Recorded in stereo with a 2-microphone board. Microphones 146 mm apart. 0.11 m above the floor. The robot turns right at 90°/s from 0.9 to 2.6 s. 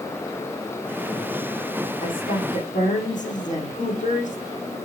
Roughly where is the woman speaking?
Ahead left.